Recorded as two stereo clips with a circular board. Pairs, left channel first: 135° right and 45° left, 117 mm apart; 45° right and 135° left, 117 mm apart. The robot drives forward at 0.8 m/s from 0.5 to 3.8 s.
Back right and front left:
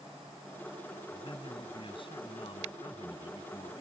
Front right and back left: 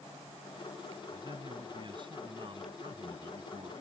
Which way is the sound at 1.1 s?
175° right.